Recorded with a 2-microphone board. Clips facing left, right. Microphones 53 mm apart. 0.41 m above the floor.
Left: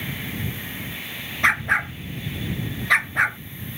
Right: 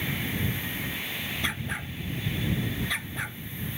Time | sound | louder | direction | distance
1.4 | a dog barking | left 18 dB | 70° left (ahead or behind) | ?